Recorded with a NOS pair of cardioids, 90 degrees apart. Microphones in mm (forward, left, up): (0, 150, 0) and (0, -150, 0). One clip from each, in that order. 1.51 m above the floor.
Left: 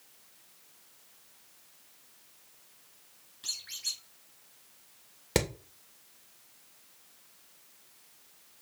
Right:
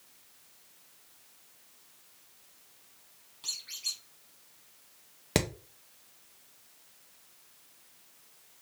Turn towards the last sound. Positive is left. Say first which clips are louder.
# left 1 dB
turn(degrees=-10)